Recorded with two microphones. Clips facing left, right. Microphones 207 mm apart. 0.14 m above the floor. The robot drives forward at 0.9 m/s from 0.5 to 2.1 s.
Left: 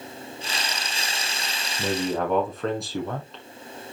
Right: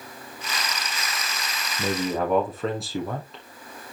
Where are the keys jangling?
I don't hear keys jangling.